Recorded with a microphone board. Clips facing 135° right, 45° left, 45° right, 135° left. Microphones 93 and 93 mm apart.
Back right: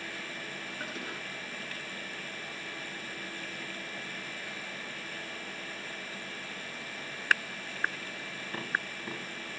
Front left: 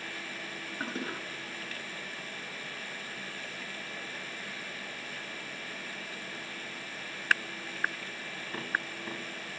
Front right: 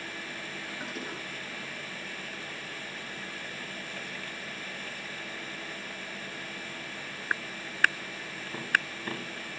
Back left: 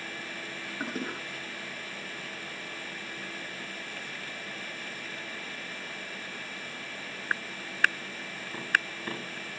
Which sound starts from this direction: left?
A toilet flushing, at 0.8 s.